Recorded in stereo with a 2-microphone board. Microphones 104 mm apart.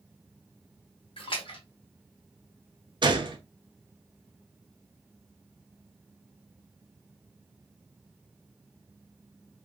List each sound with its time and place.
1.2 s a splash: 55° left (ahead or behind), 1.1 m
3.0 s a gunshot: 50° right (ahead or behind), 0.6 m